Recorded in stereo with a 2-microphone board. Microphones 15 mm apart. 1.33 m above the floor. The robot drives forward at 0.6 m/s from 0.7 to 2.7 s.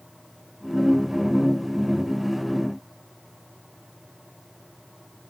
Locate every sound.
Only background noise.